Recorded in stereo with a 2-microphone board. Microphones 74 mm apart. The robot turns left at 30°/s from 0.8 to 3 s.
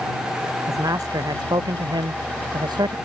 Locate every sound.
0.7 s a man speaking: 50° right; by 3.0 s 115° right